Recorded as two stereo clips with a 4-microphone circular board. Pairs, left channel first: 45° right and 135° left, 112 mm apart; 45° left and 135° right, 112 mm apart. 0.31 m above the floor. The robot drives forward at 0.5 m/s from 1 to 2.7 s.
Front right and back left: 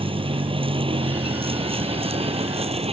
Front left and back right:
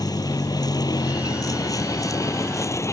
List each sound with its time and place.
0.0 s a vehicle: 100° left; by 2.9 s 110° left